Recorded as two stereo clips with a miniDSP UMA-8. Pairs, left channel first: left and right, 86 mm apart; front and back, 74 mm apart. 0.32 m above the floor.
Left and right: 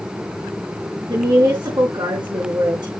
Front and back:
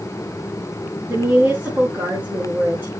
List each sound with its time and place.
1.1 s a woman speaking: 125° right, 3.5 m